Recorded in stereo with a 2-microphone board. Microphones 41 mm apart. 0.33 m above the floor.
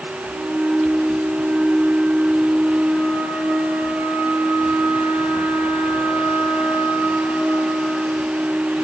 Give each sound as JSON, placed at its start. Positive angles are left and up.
{"t": 0.3, "sound": "a flute", "side_deg": -60, "distance_m": 10.0}